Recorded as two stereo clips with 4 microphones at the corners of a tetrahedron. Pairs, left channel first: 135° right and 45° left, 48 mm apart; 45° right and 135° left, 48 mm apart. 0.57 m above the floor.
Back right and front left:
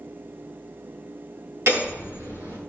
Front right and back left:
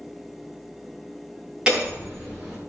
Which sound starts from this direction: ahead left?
Hammering, at 1.7 s.